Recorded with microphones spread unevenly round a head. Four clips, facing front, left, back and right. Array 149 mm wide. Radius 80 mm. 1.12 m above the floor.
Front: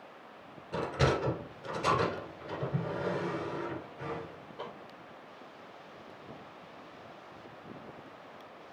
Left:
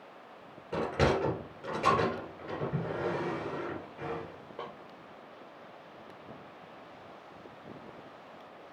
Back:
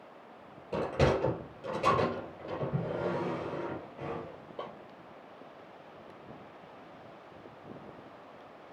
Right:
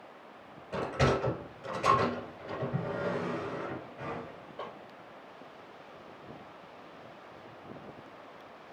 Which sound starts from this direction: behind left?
A sliding door, at 0.7 s.